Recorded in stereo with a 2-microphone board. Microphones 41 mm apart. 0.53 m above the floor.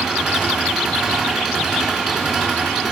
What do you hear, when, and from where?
0.0 s an engine running: centre (ahead or behind), 6 m